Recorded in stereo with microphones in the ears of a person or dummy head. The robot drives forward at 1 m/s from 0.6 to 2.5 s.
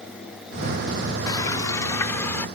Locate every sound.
1.3 s frying: 30° left (ahead or behind); by 2.5 s 20° left (ahead or behind)